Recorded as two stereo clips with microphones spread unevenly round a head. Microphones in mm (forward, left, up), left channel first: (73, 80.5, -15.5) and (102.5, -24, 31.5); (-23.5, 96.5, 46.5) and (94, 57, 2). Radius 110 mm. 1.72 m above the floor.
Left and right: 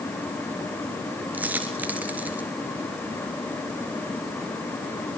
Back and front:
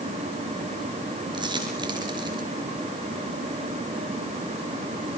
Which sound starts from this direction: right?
A dropped coin, at 1.3 s.